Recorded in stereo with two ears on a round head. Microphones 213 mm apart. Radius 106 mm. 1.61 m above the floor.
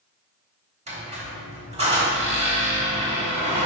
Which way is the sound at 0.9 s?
30° right (ahead or behind).